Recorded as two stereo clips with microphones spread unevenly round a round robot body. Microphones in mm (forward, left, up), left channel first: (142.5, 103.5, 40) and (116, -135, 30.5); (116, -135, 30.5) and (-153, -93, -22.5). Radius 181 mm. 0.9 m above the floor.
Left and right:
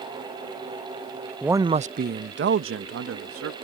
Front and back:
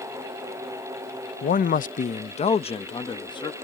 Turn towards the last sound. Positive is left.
turn(degrees=-85)